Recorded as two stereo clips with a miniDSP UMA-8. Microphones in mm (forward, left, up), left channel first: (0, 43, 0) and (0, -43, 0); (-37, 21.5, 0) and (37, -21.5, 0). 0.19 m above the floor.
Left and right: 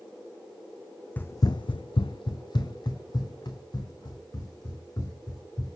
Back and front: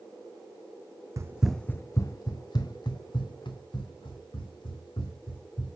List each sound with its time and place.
1.2 s running footsteps: 20° left, 0.5 m; by 5.8 s 130° left, 4.5 m